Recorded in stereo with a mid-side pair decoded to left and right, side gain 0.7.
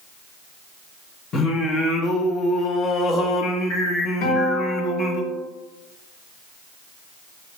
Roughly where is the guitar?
Left.